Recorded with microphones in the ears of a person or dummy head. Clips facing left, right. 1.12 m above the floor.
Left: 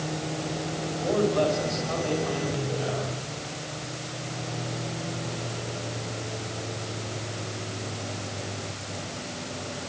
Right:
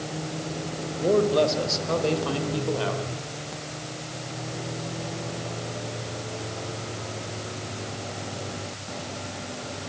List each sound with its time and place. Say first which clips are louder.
1.0 s a man speaking: right 3 dB; 50° right (ahead or behind), 4.5 m; by 3.1 s 85° right, 3.5 m